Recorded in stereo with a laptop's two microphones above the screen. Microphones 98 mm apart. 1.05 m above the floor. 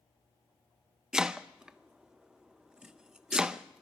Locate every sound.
1.1 s chopping: 10° right (ahead or behind), 0.9 m